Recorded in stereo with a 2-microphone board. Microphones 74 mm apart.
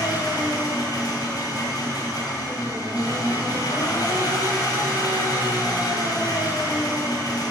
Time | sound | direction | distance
0.0 | an engine running | 70° left (ahead or behind) | 1.8 m